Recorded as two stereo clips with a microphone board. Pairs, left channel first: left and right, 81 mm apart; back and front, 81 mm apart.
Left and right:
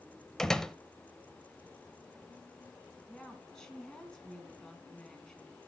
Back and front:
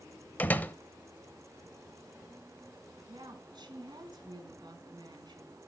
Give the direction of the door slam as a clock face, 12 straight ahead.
7 o'clock.